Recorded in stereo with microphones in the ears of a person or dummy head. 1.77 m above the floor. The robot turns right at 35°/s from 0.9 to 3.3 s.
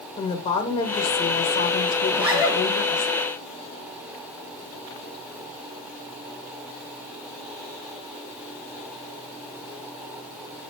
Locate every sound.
0.2 s a woman speaking: 50° left, 0.9 m; by 3.1 s 125° left, 0.9 m
2.1 s a zipper: 5° right (ahead or behind), 1.6 m; by 2.6 s 25° right (ahead or behind), 1.6 m